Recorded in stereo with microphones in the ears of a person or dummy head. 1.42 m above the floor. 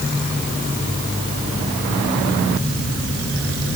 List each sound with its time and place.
Only background noise.